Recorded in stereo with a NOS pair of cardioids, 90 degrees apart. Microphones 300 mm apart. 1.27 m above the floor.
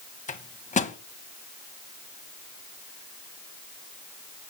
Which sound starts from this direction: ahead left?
A microwave, at 0.3 s.